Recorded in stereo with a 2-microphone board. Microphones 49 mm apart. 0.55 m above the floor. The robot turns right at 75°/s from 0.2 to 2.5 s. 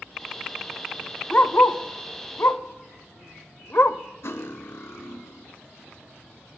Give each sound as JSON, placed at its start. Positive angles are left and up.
{"t": 1.3, "sound": "a dog barking", "side_deg": 30, "distance_m": 0.7}
{"t": 4.2, "sound": "cutlery clinking", "side_deg": 65, "distance_m": 1.2}